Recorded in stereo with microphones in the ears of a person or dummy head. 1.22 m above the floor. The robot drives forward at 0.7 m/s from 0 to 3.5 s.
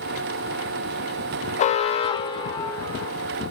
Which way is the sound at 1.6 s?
35° left (ahead or behind).